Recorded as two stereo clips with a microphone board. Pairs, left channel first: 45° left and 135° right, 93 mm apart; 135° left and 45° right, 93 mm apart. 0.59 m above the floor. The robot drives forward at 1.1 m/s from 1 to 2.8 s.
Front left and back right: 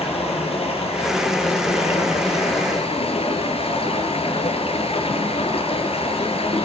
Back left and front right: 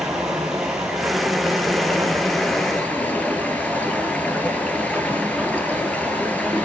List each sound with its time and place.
0.0 s running water: 40° left, 5.5 m; by 6.7 s 60° left, 4 m